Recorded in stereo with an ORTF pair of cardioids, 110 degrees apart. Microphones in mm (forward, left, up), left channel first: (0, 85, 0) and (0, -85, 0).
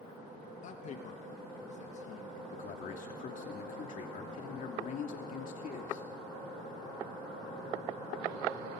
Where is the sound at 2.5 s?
50° left, 2.5 m.